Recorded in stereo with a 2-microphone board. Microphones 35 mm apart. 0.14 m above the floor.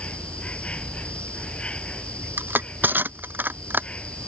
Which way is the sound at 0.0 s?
35° left (ahead or behind).